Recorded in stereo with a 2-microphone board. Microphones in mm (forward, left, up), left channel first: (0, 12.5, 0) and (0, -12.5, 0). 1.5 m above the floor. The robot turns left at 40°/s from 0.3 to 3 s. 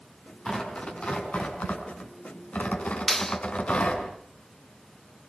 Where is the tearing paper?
25° left (ahead or behind), 6.5 m; by 4.0 s 50° left (ahead or behind), 6.5 m.